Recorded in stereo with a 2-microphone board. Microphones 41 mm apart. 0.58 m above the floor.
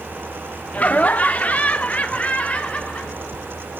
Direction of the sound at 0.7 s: 35° left (ahead or behind).